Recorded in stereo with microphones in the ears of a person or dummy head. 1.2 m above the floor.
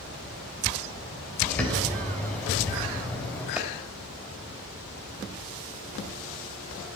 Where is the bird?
5° left (ahead or behind), 2.5 m.